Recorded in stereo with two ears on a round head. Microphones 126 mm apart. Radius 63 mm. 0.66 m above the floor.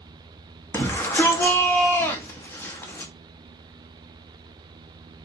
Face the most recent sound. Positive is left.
turn(degrees=15)  # may be behind; listen again after turning